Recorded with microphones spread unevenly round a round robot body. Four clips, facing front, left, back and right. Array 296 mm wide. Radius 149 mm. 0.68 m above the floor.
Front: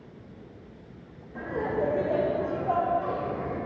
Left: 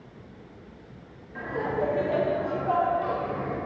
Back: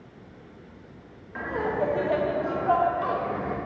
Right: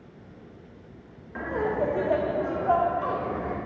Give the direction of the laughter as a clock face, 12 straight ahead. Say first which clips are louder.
Right 2 dB, back 1 dB; 3 o'clock.